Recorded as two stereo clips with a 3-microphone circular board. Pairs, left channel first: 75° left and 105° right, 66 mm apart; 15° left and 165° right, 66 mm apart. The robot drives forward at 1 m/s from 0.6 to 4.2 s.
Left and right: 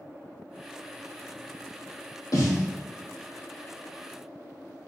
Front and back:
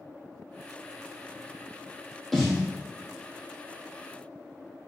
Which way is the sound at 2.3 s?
105° left.